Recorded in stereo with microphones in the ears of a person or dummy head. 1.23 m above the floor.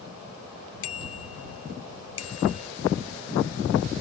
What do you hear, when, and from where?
0.8 s a bicycle bell: 80° left; by 2.7 s 90° left